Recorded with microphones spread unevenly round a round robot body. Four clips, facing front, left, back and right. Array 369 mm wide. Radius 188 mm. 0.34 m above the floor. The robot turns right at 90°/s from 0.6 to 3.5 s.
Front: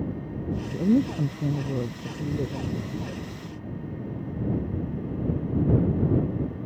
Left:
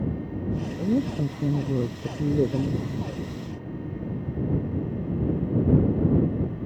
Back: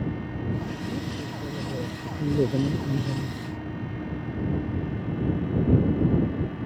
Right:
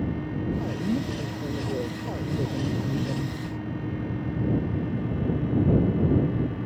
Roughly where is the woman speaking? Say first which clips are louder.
Left 3 dB, front 10 dB; ahead right.